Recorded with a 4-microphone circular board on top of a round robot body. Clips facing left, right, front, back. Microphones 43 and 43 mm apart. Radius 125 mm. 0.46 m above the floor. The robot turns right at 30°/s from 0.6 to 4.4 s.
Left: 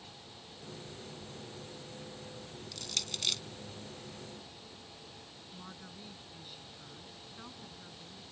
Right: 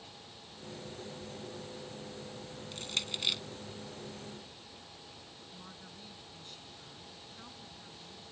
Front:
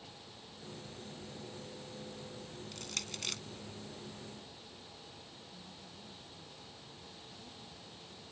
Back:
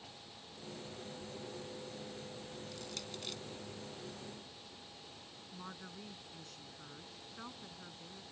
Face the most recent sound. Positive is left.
turn(degrees=170)